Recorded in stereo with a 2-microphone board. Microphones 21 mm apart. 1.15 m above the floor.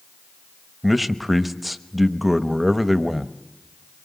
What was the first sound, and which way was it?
A man speaking, 5° right (ahead or behind).